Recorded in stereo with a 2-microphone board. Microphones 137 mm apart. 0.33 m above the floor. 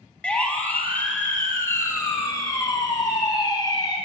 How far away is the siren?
About 3.5 m.